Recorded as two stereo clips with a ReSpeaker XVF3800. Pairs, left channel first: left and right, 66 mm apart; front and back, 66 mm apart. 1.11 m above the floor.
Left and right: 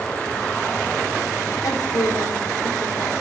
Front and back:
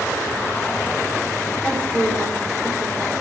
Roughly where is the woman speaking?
Left.